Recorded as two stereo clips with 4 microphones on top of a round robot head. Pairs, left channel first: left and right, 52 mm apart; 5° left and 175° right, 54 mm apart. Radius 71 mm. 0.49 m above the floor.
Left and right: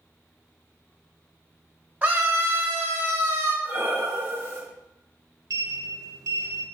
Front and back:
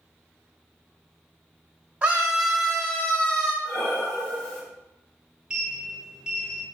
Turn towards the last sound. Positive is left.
turn(degrees=-95)